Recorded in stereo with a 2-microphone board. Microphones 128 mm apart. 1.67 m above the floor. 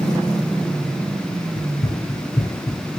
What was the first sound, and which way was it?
Running footsteps, 55° left (ahead or behind).